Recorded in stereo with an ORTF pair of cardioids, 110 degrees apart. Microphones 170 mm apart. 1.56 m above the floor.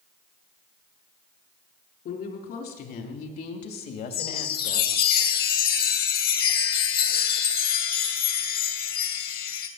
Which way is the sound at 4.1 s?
60° left.